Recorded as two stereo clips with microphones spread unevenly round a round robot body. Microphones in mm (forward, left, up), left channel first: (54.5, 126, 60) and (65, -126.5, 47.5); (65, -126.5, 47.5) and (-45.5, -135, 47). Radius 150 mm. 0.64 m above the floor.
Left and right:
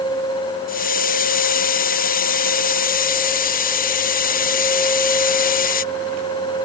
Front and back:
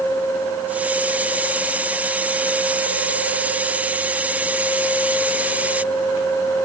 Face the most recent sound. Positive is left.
turn(degrees=115)